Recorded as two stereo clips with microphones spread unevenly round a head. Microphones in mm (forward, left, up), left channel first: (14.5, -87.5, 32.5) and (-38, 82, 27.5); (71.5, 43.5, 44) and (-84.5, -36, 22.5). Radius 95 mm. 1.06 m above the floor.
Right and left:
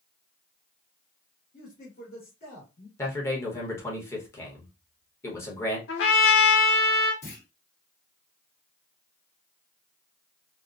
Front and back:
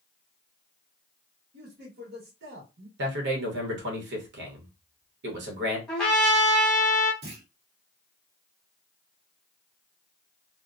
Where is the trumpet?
60° right, 1.1 m.